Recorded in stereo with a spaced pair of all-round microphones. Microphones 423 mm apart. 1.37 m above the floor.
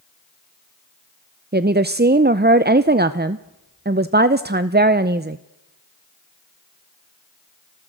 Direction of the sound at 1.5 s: 25° right (ahead or behind).